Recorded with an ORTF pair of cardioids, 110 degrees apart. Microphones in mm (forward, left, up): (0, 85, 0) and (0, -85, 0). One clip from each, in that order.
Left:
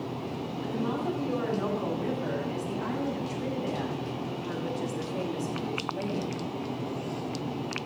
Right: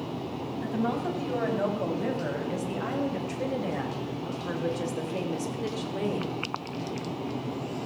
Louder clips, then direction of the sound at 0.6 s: Right 2 dB; 60° right.